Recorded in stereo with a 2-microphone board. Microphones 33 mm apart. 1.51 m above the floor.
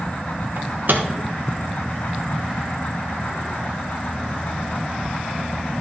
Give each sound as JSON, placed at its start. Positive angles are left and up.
{"t": 0.6, "sound": "a microwave", "side_deg": -65, "distance_m": 1.0}